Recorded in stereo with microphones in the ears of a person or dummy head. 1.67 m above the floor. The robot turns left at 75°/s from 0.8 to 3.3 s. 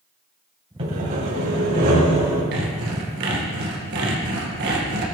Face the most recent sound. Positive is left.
turn(degrees=-120)